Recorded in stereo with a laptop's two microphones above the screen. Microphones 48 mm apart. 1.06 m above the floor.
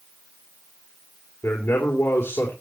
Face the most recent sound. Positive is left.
turn(degrees=50)  # may be behind; listen again after turning